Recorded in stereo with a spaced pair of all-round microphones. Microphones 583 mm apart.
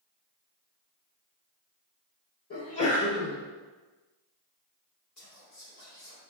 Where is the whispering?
65° left (ahead or behind), 1.6 m.